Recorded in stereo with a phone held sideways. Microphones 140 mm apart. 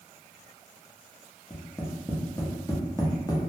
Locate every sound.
1.5 s tapping: 25° left (ahead or behind), 0.6 m